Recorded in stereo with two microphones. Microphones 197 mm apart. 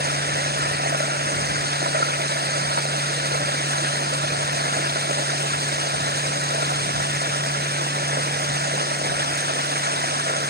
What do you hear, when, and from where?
0.0 s running water: 55° right (ahead or behind)